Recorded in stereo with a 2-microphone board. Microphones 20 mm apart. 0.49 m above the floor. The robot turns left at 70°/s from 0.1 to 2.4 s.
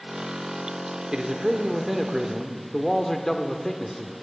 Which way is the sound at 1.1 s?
115° right.